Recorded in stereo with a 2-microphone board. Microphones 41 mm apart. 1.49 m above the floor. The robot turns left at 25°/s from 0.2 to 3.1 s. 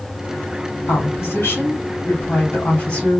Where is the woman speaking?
85° left, 3.5 m; by 3.2 s 25° left, 3.5 m.